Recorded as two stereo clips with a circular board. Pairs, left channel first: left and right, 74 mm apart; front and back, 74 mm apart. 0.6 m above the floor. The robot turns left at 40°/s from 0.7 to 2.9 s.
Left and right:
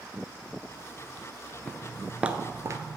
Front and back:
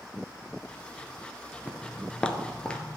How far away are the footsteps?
About 0.5 m.